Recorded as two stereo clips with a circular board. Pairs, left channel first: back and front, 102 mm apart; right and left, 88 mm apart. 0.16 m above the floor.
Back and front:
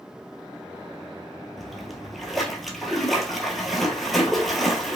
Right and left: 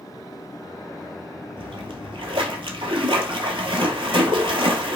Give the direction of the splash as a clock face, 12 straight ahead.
9 o'clock.